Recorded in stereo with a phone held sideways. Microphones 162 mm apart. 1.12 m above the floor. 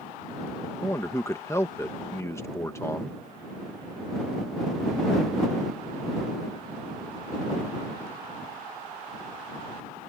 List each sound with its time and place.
0.8 s a man speaking: 20° left (ahead or behind)